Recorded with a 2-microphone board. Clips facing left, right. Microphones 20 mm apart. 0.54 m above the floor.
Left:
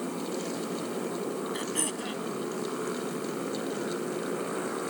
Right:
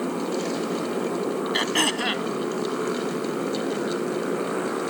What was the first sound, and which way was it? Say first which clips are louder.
A motorcycle: right 7 dB; 25° right (ahead or behind).